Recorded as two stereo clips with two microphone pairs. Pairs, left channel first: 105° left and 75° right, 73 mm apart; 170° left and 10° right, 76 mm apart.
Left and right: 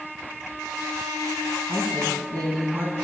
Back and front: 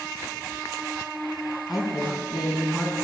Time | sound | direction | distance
1.7 | a woman speaking | 90° right | 4 m